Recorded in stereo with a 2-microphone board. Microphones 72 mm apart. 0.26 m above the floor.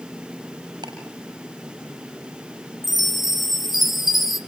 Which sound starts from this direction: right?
Ticking, at 0.8 s.